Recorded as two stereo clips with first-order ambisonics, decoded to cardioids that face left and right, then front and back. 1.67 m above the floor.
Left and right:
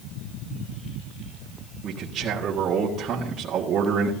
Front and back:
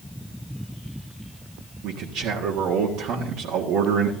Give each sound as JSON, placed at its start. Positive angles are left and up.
{"t": 1.8, "sound": "a man speaking", "azimuth_deg": -145, "distance_m": 1.6}